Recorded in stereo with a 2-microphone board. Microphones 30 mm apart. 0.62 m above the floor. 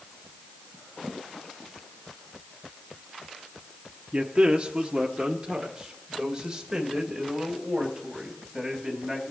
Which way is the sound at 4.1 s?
40° right (ahead or behind).